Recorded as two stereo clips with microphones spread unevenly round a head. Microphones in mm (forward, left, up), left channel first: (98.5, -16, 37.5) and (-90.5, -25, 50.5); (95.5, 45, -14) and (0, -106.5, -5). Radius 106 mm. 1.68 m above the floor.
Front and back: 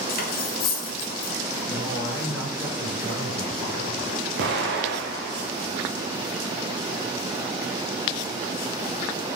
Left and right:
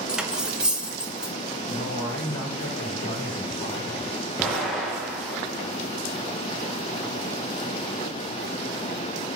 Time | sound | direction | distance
0.1 | cutlery clinking | 40° right | 1.5 m
1.7 | a man speaking | 85° left | 5.5 m
4.4 | an explosion | 145° left | 2 m